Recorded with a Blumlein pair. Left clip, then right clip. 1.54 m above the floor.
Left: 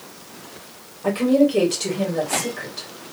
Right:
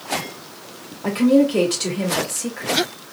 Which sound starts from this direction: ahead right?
A woman speaking, at 1.0 s.